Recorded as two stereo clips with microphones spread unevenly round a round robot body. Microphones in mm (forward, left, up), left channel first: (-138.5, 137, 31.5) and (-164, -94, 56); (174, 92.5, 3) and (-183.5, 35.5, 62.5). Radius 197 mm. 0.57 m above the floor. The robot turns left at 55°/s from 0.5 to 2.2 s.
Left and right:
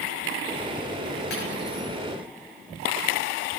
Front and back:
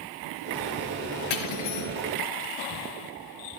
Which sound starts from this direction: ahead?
Cutlery clinking, at 1.3 s.